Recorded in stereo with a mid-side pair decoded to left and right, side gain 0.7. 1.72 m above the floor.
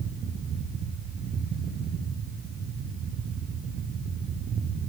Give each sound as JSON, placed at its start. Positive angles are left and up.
{"t": 0.0, "sound": "a fan", "azimuth_deg": -40, "distance_m": 1.4}